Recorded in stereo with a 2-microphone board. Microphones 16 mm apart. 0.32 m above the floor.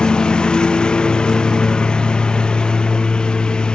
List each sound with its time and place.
0.0 s a lawn mower: 85° left